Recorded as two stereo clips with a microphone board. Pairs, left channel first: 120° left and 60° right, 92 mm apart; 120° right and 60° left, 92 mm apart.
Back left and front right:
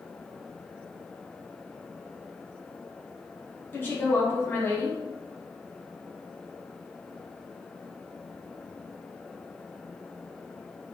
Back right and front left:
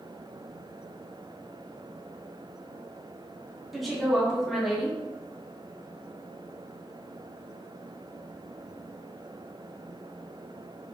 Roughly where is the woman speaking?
Behind left.